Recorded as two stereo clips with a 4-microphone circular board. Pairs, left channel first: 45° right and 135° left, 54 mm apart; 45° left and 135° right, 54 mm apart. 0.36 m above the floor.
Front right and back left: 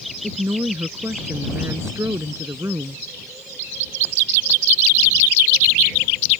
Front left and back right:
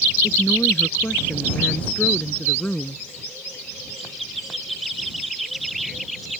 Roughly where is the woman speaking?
Left.